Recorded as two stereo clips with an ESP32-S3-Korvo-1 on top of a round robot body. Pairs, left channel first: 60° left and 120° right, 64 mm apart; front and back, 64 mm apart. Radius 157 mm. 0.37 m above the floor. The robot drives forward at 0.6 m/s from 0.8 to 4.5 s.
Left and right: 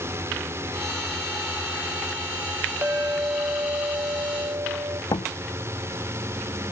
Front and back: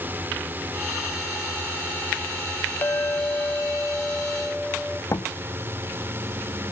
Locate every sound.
0.0 s a drone: 135° right; by 6.7 s 140° right
2.8 s a clink: 60° right; by 5.0 s 85° right
5.1 s a door slam: 45° left